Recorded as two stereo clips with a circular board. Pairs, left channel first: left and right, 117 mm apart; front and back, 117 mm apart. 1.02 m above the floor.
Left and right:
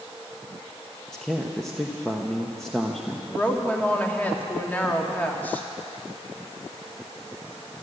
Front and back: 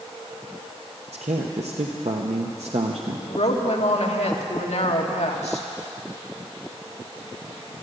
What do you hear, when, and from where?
1.1 s a man speaking: 175° left, 0.9 m
3.3 s a woman speaking: 15° left, 1.6 m